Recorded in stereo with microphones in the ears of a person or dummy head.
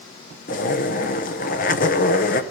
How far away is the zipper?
About 0.8 m.